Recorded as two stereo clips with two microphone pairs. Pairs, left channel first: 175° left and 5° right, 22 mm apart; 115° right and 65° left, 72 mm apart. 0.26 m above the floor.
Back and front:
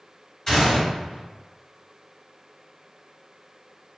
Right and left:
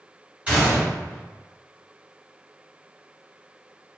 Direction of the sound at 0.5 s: 120° left.